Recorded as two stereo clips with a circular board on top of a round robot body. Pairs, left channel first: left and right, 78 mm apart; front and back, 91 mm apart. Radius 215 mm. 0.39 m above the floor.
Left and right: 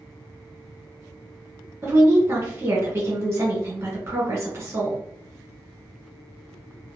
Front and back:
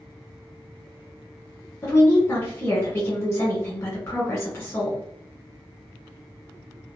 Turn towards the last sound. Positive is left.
turn(degrees=-50)